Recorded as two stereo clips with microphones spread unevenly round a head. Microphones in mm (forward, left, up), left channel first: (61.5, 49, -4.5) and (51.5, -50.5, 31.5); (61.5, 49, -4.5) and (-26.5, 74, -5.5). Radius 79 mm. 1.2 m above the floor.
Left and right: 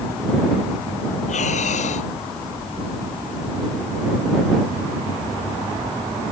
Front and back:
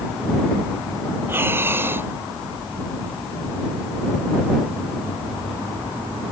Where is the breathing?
100° left.